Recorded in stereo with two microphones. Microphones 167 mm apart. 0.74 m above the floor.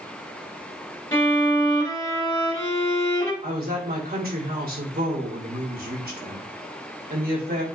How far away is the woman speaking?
About 3 m.